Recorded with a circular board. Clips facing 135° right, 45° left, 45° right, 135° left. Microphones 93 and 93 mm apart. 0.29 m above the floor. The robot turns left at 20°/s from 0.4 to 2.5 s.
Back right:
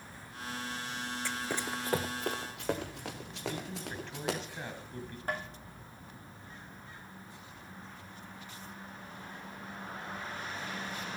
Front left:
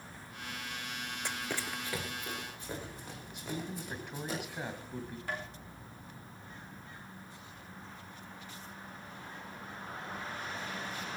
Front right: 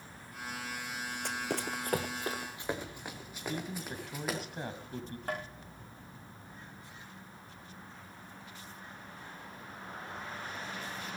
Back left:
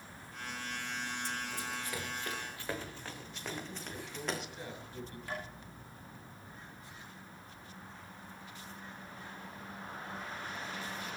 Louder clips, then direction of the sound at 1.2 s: Back right 1 dB, front right 4 dB; 25° right.